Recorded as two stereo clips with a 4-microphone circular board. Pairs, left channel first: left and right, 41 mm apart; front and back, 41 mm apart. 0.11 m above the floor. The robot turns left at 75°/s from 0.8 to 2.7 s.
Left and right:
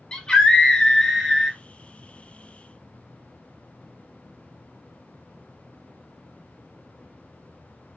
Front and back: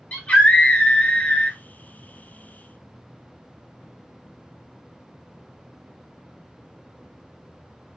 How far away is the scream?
About 1.9 m.